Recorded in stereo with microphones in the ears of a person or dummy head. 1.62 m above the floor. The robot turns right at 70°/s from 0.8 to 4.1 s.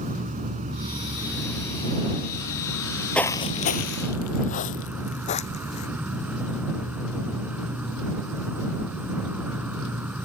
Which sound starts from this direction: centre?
Footsteps, at 3.1 s.